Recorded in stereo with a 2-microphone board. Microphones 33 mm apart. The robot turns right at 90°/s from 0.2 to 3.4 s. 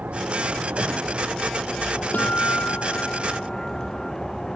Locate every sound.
0.0 s a vehicle: 125° right; by 4.6 s 165° left
2.1 s a guitar: 55° left; by 4.1 s 165° left